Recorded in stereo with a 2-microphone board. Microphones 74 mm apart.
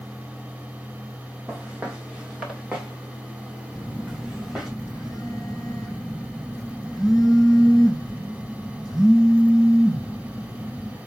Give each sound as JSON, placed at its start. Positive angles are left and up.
{"t": 1.5, "sound": "footsteps", "side_deg": -15, "distance_m": 3.0}
{"t": 3.7, "sound": "a phone buzzing", "side_deg": -5, "distance_m": 4.5}